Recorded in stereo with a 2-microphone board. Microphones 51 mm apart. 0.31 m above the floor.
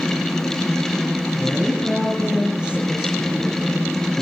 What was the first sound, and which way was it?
A woman speaking, 15° right (ahead or behind).